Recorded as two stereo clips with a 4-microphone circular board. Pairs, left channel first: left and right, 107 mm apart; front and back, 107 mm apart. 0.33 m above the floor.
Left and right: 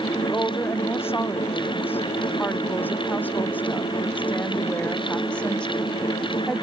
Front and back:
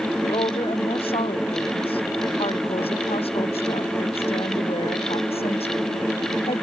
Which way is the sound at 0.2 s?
25° left.